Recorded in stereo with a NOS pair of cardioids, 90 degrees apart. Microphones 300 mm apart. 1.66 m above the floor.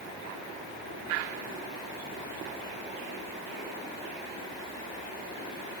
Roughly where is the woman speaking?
I don't hear a woman speaking.